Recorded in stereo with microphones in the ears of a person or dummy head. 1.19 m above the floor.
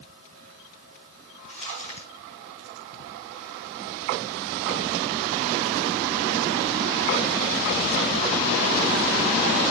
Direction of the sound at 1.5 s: 35° left (ahead or behind).